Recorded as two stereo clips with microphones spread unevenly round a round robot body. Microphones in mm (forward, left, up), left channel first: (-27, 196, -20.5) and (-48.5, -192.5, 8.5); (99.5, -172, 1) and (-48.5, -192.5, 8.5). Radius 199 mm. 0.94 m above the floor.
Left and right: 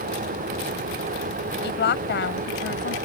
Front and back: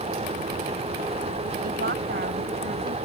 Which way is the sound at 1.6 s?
150° left.